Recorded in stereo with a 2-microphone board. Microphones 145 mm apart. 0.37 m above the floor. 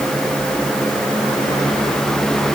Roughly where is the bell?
No bell in this recording.